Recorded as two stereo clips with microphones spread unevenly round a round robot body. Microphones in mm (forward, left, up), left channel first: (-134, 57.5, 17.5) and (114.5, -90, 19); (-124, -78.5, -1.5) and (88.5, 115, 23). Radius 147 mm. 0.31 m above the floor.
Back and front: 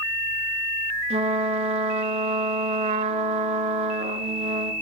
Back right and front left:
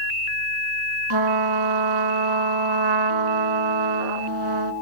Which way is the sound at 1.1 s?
40° left.